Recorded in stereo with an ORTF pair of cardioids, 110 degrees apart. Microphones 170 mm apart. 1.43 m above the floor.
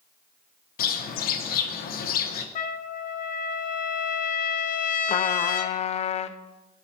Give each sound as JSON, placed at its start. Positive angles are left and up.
{"t": 0.8, "sound": "a bird", "azimuth_deg": 60, "distance_m": 1.0}
{"t": 2.5, "sound": "a trumpet", "azimuth_deg": 55, "distance_m": 0.8}
{"t": 5.1, "sound": "a trumpet", "azimuth_deg": 40, "distance_m": 0.5}